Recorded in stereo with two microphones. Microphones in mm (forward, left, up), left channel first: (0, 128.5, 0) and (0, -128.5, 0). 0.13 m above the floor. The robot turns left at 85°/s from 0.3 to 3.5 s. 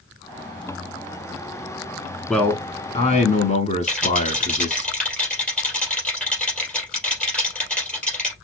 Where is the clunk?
I don't hear a clunk.